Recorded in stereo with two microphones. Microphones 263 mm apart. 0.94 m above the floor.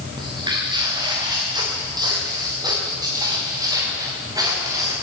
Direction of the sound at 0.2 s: 15° right (ahead or behind).